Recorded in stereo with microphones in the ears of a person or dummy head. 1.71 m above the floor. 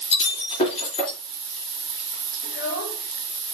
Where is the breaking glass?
35° left (ahead or behind), 3.5 m.